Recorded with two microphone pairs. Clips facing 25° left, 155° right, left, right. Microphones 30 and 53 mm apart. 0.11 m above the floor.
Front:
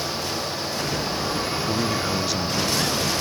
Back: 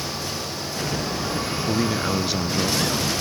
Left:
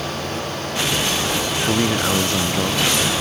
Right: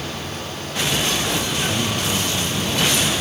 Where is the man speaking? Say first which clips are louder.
Back 3 dB, left 4 dB; 130° left.